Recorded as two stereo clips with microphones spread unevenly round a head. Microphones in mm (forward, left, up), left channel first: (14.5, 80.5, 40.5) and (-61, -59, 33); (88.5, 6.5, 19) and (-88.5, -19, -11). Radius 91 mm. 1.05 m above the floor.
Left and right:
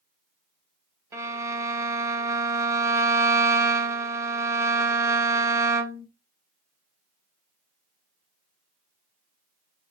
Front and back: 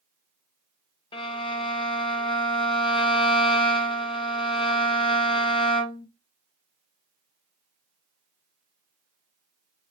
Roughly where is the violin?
Ahead right.